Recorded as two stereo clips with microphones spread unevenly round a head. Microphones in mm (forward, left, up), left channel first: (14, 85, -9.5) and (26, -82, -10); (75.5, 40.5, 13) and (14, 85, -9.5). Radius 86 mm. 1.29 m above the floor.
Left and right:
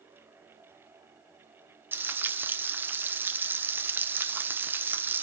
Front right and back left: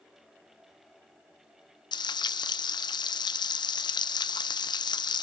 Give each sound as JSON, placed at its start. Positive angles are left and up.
{"t": 1.9, "sound": "frying", "azimuth_deg": -10, "distance_m": 0.9}